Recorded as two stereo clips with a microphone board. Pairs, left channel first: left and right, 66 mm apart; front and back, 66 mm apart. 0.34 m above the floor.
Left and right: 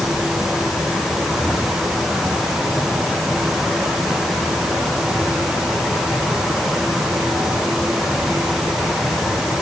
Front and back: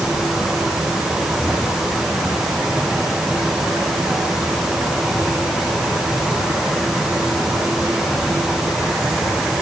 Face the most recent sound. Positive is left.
No sound to turn to.